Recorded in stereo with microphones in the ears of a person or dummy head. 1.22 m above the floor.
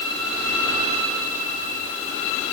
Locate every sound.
Only background noise.